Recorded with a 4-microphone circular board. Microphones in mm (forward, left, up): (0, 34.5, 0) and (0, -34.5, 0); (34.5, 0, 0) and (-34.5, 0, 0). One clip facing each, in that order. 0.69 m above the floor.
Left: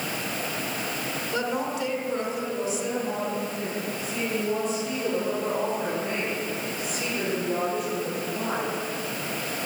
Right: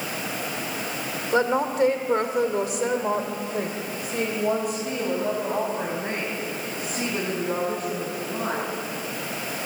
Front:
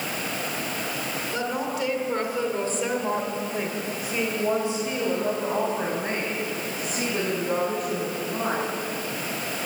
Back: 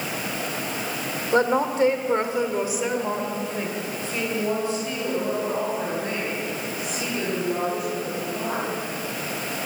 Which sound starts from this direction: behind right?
A woman speaking, at 1.3 s.